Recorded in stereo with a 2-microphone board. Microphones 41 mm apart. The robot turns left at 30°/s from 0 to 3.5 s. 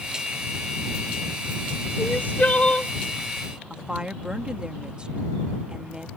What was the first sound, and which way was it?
Crying, 50° left (ahead or behind).